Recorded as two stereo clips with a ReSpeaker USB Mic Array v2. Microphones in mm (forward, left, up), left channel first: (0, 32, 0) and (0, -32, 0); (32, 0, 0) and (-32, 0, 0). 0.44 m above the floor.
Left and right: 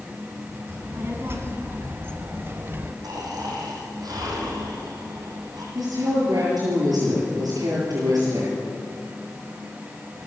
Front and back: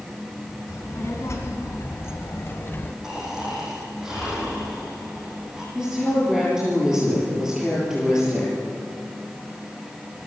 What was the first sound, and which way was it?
A child speaking, 40° right.